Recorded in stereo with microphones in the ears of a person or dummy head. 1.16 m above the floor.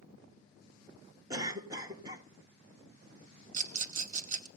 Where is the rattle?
45° right (ahead or behind), 0.9 m.